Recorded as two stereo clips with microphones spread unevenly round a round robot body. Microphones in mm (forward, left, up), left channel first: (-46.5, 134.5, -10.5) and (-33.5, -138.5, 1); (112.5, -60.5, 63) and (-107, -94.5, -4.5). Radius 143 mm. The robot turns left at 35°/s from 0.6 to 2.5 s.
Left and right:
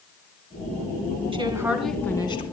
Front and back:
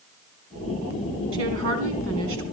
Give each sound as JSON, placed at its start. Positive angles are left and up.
{"t": 1.3, "sound": "a woman speaking", "azimuth_deg": -160, "distance_m": 3.0}